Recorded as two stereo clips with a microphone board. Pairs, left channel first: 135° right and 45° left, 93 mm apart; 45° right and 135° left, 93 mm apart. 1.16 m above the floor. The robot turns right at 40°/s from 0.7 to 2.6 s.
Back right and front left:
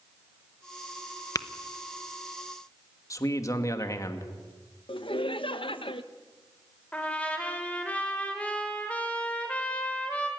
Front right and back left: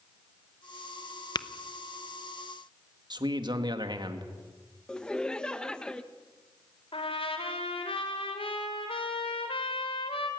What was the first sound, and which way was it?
Tapping, 85° right.